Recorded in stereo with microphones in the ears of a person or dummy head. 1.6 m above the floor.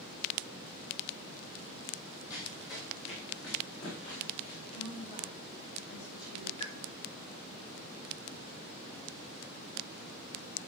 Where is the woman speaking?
50° left (ahead or behind), 5.5 m.